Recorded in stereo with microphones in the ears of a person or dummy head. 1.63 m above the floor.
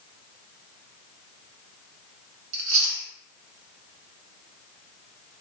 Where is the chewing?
40° right (ahead or behind), 1.2 m.